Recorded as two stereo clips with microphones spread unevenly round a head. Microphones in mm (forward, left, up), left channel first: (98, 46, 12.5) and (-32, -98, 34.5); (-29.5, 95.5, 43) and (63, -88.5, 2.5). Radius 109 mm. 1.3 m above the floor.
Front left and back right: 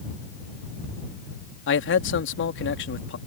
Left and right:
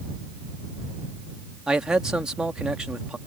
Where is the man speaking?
25° left.